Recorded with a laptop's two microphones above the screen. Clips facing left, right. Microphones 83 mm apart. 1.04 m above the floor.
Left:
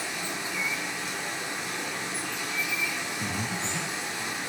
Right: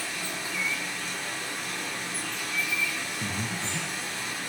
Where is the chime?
No chime in this recording.